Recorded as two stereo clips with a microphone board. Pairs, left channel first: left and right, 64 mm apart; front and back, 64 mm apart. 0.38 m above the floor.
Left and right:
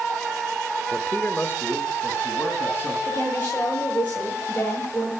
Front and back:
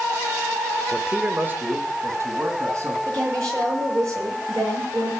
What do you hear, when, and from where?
0.9 s a man speaking: 60° left, 0.8 m; by 3.0 s 145° left, 3 m
3.1 s a woman speaking: 155° left, 8 m